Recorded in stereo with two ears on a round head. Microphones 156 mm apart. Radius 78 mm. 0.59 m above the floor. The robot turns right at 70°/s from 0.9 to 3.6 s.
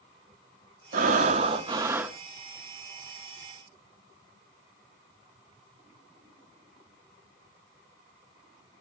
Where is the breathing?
90° right, 0.7 m; by 2.2 s 5° right, 0.7 m.